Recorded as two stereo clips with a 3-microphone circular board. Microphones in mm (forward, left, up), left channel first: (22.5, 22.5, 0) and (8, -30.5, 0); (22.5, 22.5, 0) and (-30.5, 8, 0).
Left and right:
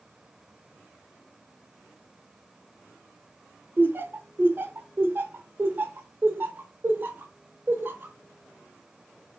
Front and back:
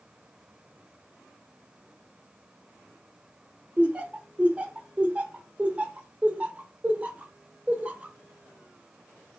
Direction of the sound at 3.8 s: 115° right.